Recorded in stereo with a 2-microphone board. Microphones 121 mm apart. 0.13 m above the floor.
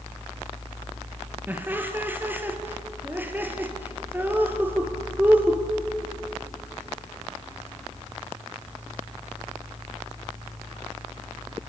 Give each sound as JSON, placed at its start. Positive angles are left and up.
{"t": 1.5, "sound": "laughter", "side_deg": -15, "distance_m": 3.5}